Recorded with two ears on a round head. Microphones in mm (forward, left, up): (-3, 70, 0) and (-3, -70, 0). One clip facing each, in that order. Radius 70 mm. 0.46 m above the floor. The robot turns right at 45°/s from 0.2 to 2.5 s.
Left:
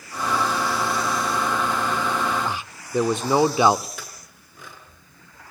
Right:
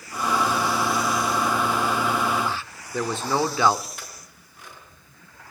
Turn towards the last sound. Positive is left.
turn(degrees=70)  # may be behind; listen again after turning